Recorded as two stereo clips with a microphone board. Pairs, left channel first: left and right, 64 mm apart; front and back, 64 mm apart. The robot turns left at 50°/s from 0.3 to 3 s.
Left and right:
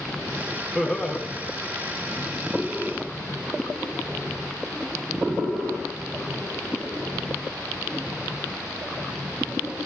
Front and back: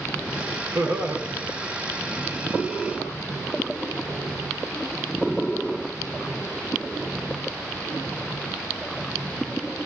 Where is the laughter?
175° right, 1.1 m; by 1.2 s 165° left, 1.1 m.